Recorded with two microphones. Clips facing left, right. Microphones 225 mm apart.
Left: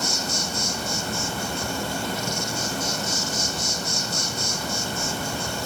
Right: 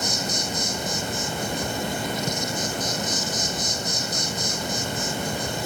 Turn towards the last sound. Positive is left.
turn(degrees=-20)  # may be behind; listen again after turning